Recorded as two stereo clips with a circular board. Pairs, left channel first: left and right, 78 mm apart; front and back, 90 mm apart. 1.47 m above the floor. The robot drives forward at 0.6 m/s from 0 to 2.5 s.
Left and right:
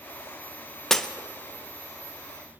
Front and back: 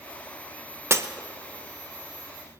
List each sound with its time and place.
0.9 s breaking glass: 170° left, 0.6 m